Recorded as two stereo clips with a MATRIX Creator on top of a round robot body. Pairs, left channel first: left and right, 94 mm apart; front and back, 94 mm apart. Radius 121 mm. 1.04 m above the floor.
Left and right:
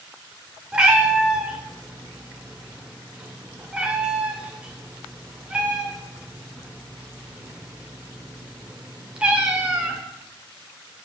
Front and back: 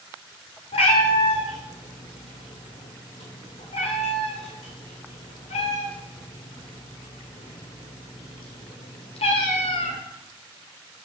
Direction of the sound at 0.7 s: 10° right.